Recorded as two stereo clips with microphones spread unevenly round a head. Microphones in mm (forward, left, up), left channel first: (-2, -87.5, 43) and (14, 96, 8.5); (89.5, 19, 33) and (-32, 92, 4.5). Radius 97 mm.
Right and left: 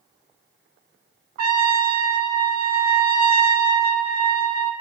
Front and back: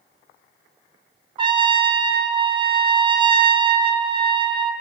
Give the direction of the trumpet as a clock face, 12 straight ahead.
9 o'clock.